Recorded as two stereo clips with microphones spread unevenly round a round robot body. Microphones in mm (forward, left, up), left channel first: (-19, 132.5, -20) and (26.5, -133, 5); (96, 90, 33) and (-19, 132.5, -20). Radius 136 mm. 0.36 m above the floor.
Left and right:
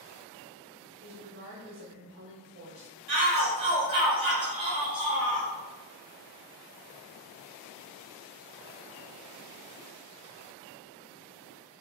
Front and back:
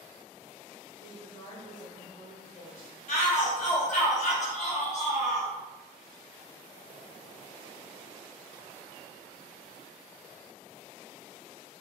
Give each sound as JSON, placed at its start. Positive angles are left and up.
{"t": 1.0, "sound": "a woman speaking", "azimuth_deg": -55, "distance_m": 1.2}
{"t": 3.1, "sound": "a shout", "azimuth_deg": -15, "distance_m": 1.4}